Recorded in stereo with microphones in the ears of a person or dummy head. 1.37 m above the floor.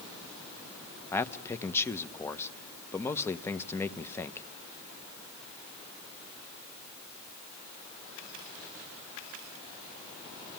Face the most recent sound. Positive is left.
turn(degrees=15)  # may be behind; listen again after turning